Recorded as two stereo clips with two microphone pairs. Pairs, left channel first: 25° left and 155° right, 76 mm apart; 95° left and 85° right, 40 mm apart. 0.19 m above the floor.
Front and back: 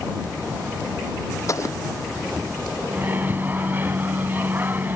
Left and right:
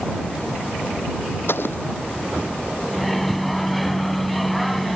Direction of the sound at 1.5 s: 70° left.